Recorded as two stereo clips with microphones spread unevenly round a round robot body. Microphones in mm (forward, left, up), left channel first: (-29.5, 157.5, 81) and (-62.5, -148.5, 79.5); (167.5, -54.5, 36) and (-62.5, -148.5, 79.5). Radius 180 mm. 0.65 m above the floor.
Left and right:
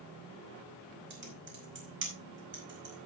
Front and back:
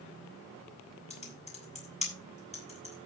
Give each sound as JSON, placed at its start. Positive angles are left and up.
{"t": 1.1, "sound": "typing on a keyboard", "azimuth_deg": -40, "distance_m": 5.0}